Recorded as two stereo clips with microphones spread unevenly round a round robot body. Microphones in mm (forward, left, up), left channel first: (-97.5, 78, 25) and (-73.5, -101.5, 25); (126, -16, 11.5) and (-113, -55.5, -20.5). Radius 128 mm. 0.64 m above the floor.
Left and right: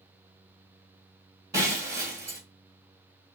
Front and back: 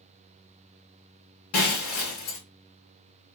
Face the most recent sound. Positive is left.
turn(degrees=-5)